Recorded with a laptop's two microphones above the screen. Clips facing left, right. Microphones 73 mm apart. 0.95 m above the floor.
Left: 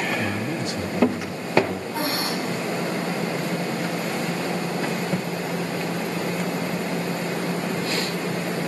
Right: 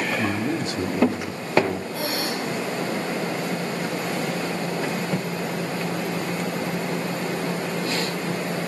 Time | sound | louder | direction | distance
0.2 | a man speaking | right 2 dB | 45° right (ahead or behind) | 3 m
1.9 | breathing | left 1 dB | 35° left (ahead or behind) | 9 m